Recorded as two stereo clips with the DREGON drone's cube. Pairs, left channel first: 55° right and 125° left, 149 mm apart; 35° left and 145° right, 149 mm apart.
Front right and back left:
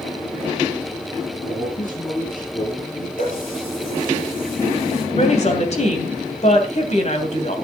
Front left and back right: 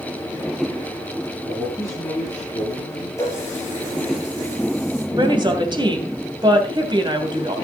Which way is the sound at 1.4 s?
35° right.